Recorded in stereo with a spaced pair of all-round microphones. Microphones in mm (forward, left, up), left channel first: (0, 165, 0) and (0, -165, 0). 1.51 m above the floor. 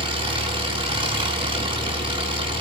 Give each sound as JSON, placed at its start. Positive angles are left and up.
{"t": 0.0, "sound": "an engine running", "side_deg": -15, "distance_m": 4.5}